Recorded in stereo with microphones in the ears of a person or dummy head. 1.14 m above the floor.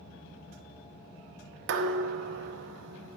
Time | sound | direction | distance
1.7 | dishes clattering | 65° right (ahead or behind) | 0.9 m